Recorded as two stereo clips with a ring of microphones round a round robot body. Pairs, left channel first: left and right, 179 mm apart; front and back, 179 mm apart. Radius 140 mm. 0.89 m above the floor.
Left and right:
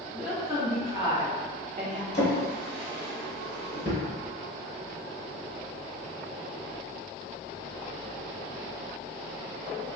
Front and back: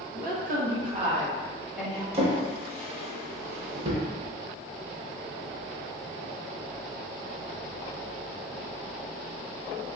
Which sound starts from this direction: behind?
A woman speaking, at 0.1 s.